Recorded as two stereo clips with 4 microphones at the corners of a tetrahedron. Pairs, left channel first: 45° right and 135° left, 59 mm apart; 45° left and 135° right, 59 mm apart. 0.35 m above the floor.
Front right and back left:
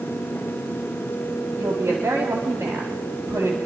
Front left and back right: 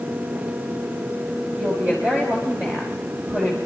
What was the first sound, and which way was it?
A woman speaking, 165° left.